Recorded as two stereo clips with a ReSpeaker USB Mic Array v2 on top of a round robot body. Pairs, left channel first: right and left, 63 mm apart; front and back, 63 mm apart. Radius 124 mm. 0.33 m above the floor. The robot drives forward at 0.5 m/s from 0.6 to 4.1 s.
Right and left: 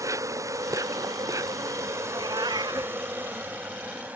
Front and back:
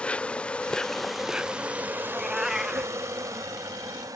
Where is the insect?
70° left; by 4.2 s 155° left.